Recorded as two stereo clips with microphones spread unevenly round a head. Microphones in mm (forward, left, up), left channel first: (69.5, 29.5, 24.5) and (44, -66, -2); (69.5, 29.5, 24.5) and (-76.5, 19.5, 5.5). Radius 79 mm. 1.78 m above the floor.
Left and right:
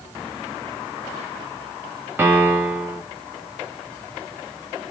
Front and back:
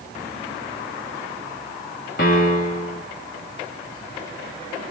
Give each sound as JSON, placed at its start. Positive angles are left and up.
{"t": 2.2, "sound": "a piano", "azimuth_deg": -35, "distance_m": 1.7}